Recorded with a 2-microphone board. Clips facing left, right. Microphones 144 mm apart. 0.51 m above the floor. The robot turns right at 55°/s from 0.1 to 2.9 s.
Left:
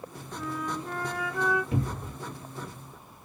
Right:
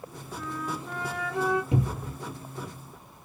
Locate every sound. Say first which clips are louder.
0.3 s a flute: left 1 dB; 160° left, 3 m; by 1.6 s 135° right, 3 m
1.7 s a cupboard door: right 2 dB; 20° right (ahead or behind), 0.9 m; by 2.1 s centre (ahead or behind), 0.9 m